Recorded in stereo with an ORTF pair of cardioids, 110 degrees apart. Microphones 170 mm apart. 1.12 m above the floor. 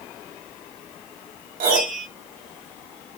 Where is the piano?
60° right, 1.2 m.